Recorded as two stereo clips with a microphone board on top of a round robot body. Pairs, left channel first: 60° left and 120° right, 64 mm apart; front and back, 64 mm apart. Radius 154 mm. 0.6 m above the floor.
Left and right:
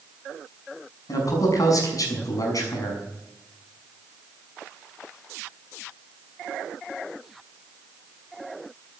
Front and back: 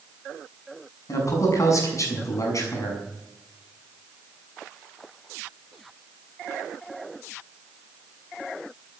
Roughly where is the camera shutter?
No camera shutter in this recording.